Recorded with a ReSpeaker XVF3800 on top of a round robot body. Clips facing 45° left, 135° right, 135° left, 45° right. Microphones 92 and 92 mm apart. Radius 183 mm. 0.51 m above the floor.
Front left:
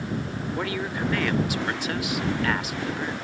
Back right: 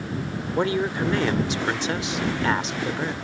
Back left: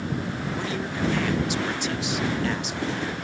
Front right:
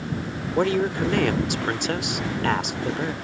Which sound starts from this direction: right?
A woman speaking, at 0.6 s.